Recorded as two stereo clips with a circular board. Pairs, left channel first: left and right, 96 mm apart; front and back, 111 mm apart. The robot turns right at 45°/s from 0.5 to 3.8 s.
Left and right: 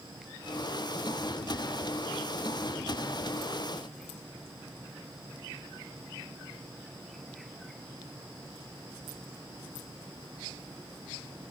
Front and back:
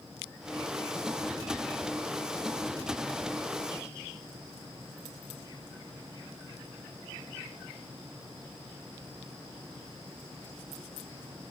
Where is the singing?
I don't hear singing.